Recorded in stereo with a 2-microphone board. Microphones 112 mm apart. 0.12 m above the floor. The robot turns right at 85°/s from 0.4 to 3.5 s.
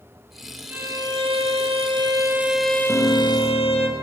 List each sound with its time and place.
0.7 s a violin: 165° right, 2.5 m; by 3.9 s 75° left, 2.5 m
2.9 s a piano: 165° left, 6.5 m; by 3.9 s 145° right, 6.5 m